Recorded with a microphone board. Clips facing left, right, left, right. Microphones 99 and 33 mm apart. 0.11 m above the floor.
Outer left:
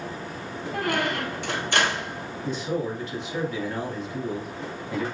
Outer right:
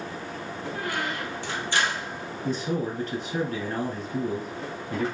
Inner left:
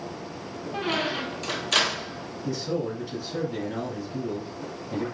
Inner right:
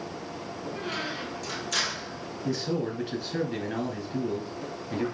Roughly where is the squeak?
Left.